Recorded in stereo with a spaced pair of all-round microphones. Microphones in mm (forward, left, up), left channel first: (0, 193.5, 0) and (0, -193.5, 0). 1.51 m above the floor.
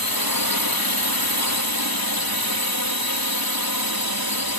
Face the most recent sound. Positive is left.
turn(degrees=60)  # may be behind; listen again after turning